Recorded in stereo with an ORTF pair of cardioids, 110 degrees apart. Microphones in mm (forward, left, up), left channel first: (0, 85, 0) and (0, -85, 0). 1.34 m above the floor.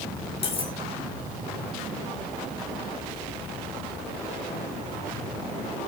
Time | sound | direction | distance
0.4 | cutlery clinking | 35° left | 2 m